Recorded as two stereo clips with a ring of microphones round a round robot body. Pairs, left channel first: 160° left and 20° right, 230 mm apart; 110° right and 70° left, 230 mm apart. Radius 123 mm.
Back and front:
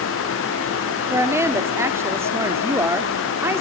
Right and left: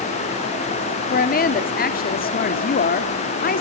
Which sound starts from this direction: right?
A woman speaking, at 1.1 s.